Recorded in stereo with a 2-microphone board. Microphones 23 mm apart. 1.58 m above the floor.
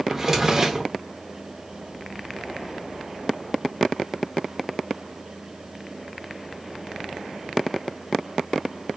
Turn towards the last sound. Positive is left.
turn(degrees=-20)  # may be behind; listen again after turning